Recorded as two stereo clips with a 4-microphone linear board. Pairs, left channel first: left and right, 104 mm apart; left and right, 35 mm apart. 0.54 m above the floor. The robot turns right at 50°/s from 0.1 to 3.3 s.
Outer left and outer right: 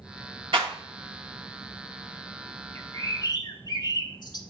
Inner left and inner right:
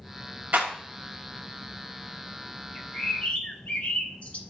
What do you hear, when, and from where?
0.5 s a clap: 50° right (ahead or behind), 2 m; by 0.7 s 45° right (ahead or behind), 2 m
2.8 s a bird: 20° left (ahead or behind), 0.9 m; by 4.4 s 45° left (ahead or behind), 0.9 m